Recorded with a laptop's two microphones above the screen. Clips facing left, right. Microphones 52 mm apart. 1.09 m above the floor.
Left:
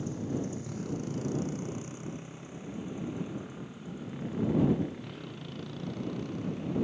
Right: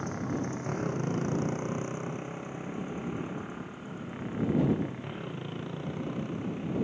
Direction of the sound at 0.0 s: 50° right (ahead or behind).